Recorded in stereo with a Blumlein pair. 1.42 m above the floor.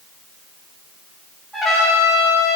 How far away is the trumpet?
About 5.5 m.